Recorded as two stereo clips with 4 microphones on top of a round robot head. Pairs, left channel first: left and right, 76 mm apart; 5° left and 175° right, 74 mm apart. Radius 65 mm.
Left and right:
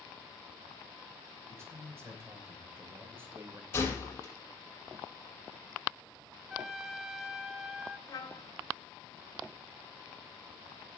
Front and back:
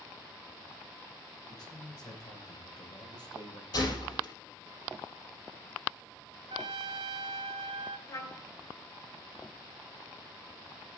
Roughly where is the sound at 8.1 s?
Ahead left.